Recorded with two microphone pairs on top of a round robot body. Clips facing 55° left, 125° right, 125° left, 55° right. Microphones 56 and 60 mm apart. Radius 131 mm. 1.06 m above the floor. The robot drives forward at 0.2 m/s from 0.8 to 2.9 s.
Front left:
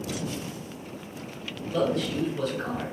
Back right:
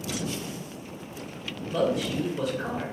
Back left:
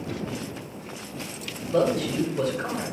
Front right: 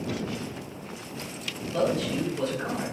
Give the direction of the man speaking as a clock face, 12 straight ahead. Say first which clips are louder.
Even, back left 3 dB; 7 o'clock.